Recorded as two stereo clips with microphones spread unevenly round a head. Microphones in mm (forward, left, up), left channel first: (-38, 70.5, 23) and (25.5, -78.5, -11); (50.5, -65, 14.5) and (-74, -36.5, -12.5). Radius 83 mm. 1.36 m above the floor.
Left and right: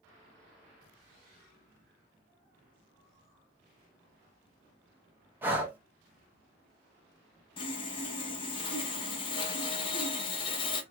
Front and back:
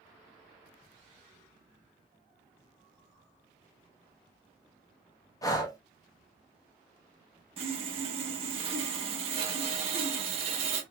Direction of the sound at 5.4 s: 20° left.